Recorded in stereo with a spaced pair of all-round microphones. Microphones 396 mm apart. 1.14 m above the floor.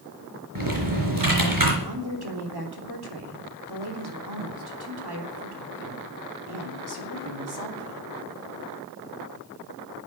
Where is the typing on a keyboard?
55° right (ahead or behind), 4 m.